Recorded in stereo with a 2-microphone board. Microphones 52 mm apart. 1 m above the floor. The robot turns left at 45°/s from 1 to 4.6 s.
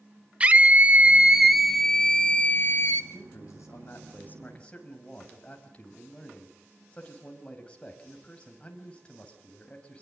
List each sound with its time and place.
0.4 s a scream: 150° right, 0.6 m; by 3.0 s 120° left, 0.6 m
3.1 s a man speaking: 90° left, 6 m; by 10.0 s 20° left, 6 m